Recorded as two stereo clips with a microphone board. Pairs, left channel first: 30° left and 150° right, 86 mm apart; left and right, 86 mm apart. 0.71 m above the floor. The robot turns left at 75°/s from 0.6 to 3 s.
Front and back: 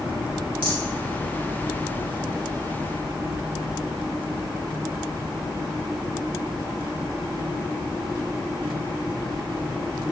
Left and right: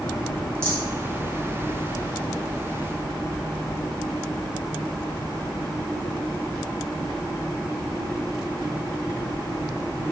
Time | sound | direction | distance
0.6 | a rattle | 145° right | 1.4 m